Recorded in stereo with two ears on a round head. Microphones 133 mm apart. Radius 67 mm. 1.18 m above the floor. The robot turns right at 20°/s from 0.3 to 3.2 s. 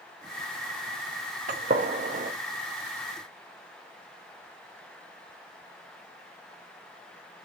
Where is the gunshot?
55° right (ahead or behind), 0.6 m; by 2.3 s 50° right (ahead or behind), 0.6 m.